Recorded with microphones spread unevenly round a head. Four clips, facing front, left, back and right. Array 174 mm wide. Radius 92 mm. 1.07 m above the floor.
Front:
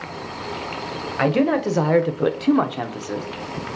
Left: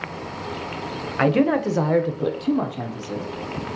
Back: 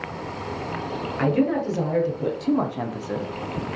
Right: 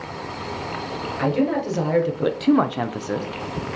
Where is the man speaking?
50° left, 0.8 m; by 3.3 s 60° right, 0.7 m.